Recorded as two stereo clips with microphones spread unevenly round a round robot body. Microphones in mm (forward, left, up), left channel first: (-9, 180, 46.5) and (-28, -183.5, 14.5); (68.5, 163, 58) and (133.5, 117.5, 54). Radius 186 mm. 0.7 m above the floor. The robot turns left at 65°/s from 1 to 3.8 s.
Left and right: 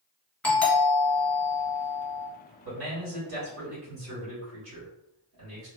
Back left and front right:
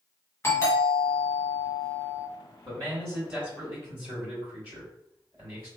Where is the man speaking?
70° right, 1.9 m; by 5.7 s 145° right, 1.9 m.